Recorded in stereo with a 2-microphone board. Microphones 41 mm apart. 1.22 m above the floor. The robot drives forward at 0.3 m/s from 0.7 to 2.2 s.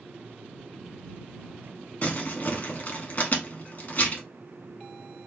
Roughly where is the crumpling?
Left.